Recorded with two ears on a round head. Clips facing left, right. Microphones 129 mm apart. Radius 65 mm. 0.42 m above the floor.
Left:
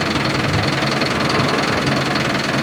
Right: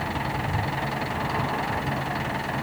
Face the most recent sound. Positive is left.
turn(degrees=90)